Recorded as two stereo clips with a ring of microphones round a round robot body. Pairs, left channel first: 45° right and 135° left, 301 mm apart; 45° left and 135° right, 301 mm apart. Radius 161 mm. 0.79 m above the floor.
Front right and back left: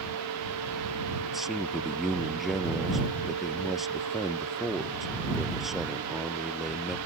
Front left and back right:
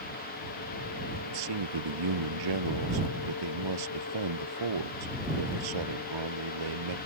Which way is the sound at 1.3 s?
135° right.